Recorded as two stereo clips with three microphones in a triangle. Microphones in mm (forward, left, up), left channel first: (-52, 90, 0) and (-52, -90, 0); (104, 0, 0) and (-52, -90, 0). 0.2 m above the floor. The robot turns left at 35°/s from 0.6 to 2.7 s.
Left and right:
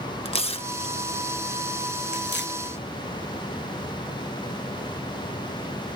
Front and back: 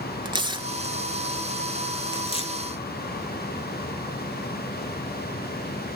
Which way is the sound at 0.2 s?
150° left.